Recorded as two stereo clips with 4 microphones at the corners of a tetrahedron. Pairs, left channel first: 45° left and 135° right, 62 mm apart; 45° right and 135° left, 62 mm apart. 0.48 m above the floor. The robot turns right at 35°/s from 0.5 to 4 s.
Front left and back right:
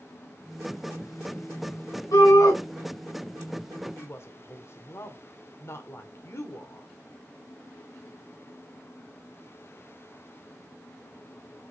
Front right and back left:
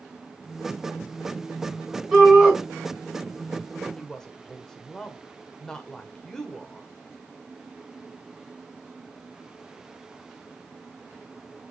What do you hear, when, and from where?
2.1 s a shout: 45° left, 3.5 m; by 2.6 s 60° left, 3.5 m
4.0 s a woman speaking: 30° left, 1.6 m